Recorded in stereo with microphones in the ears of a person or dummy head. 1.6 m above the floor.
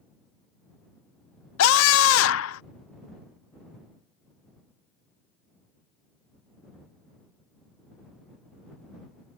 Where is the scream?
85° left.